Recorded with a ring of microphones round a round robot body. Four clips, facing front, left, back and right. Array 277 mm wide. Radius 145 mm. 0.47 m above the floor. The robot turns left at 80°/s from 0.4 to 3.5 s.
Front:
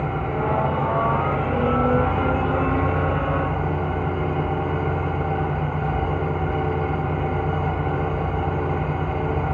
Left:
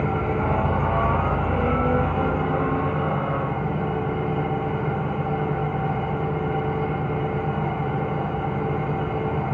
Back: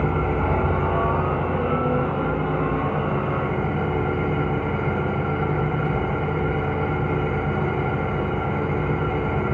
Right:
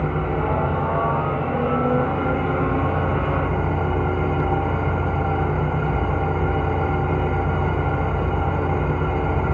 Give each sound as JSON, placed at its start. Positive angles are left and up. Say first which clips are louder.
{"t": 0.0, "sound": "an engine running", "louder": "right 1 dB, back 1 dB", "azimuth_deg": 140, "distance_m": 2.0}